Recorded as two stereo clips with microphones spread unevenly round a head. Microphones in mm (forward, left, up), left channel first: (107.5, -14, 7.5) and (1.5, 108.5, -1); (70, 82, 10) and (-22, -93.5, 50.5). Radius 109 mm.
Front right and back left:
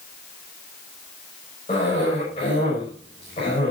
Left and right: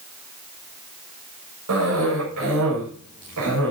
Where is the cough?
115° right, 7 m.